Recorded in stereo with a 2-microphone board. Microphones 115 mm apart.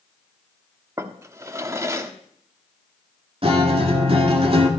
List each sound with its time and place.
1.0 s a drawer: 25° right (ahead or behind), 0.9 m
3.4 s a guitar: 55° right (ahead or behind), 1.9 m